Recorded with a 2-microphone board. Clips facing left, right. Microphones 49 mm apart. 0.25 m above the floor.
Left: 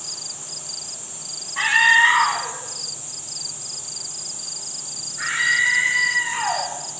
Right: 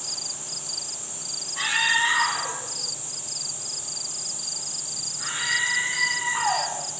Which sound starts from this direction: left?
A scream, at 1.6 s.